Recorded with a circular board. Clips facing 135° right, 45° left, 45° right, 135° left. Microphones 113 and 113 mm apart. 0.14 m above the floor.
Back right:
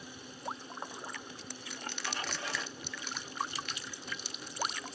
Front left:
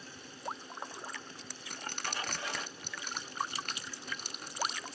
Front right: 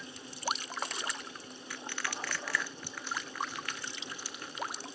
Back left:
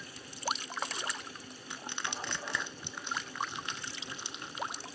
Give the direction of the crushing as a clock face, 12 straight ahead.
10 o'clock.